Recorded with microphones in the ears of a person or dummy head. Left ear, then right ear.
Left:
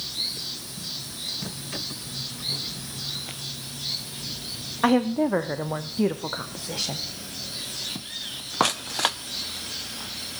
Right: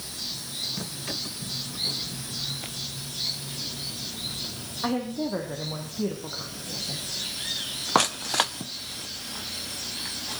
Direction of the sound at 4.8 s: 80° left.